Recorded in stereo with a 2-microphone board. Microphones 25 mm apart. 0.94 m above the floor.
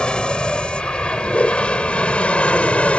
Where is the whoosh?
65° left (ahead or behind).